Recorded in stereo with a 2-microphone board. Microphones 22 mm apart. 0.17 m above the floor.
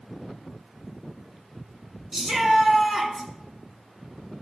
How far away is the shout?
About 2 m.